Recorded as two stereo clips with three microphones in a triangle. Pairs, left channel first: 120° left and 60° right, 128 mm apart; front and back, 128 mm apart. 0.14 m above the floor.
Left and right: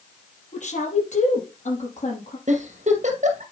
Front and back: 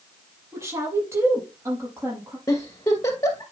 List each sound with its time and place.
0.5 s a woman speaking: 115° left, 5 m
2.5 s a giggle: 65° right, 2.5 m